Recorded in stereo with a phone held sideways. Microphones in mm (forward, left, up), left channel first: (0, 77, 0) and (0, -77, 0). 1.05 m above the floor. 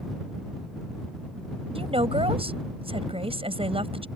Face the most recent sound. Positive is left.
turn(degrees=-40)  # may be behind; listen again after turning